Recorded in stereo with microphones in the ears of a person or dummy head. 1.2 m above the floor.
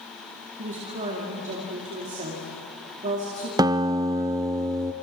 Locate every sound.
0.6 s a woman speaking: 35° right (ahead or behind), 2 m
3.6 s a guitar: 20° right (ahead or behind), 0.5 m